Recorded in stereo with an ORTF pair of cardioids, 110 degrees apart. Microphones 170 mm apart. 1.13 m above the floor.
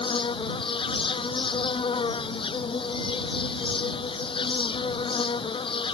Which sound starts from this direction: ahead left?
An insect, at 0.0 s.